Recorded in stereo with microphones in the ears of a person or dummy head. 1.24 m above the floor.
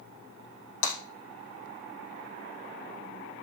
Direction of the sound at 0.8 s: 70° left (ahead or behind).